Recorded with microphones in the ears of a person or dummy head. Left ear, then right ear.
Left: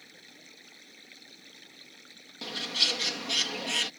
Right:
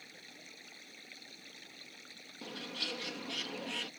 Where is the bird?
30° left (ahead or behind).